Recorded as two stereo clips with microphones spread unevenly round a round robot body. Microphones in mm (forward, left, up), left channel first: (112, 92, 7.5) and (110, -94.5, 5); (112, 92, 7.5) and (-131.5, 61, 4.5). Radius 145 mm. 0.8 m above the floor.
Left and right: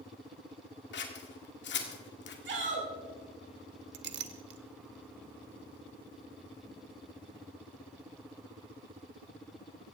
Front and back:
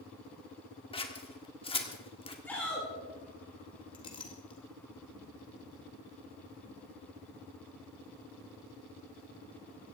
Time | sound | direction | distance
0.9 | scissors | 75° left | 2.0 m
2.5 | a shout | 75° right | 4 m
3.9 | a clink | 65° right | 1.0 m